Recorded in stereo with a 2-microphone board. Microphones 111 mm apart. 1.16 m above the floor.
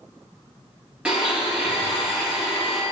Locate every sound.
1.1 s a blender: 10° right (ahead or behind), 2 m